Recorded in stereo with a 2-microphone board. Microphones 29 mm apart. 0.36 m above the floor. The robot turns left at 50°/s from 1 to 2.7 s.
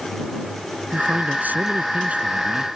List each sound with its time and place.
0.9 s a man speaking: 70° right; by 2.6 s 155° right